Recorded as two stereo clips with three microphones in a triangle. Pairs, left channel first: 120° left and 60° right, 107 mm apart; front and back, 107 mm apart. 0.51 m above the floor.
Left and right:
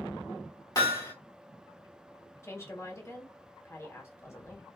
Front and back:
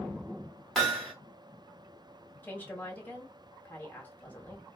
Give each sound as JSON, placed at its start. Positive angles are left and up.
{"t": 0.8, "sound": "hammering", "azimuth_deg": 85, "distance_m": 1.4}
{"t": 2.4, "sound": "a woman speaking", "azimuth_deg": 70, "distance_m": 1.2}